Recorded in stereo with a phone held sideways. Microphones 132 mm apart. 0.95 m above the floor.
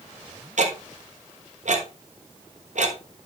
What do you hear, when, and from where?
0.6 s ticking: 65° right (ahead or behind), 1.2 m